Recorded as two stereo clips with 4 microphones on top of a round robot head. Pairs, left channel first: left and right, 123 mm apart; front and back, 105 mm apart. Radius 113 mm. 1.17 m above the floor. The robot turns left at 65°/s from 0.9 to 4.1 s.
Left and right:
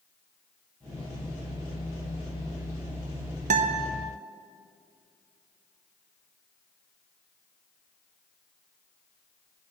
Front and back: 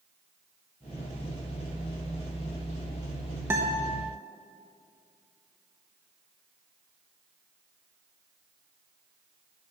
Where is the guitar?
110° right, 0.7 m; by 3.9 s 135° right, 0.7 m.